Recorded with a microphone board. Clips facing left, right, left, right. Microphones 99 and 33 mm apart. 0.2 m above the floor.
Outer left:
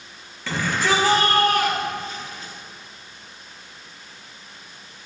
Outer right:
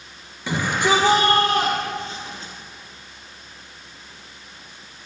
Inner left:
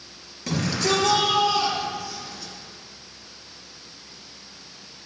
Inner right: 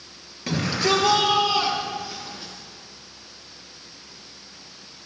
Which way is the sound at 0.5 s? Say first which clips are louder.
Outer right 2 dB, inner right 1 dB; 15° right (ahead or behind).